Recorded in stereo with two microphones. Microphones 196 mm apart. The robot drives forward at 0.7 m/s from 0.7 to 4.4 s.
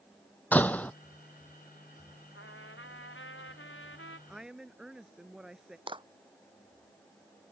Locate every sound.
0.5 s a door slam: 10° left (ahead or behind)
2.4 s a trumpet: 85° left; by 4.2 s 80° left
4.3 s a woman speaking: 5° right (ahead or behind)
5.9 s a clap: 25° right (ahead or behind)